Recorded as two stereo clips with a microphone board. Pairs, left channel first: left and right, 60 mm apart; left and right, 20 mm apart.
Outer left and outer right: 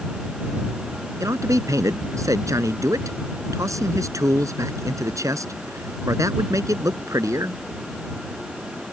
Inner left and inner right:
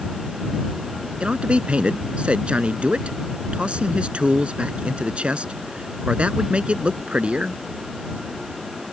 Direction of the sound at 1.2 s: 65° right (ahead or behind).